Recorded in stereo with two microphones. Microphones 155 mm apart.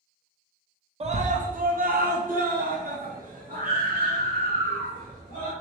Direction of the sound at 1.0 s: 40° right (ahead or behind).